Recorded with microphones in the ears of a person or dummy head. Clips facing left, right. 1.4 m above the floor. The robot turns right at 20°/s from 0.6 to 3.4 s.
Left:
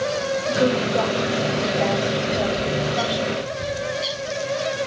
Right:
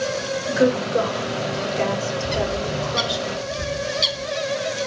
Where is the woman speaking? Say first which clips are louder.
Right 2 dB; 25° right (ahead or behind), 4 m; by 3.2 s 80° right, 4 m.